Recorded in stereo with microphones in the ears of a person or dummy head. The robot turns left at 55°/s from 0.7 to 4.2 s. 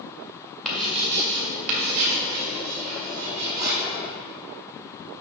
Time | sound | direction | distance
0.7 | writing | centre (ahead or behind) | 1.7 m